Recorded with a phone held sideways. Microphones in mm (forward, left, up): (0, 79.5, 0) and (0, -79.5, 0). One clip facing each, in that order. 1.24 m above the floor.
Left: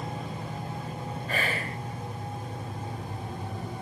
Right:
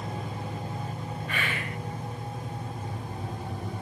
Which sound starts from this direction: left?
Whispering, at 1.3 s.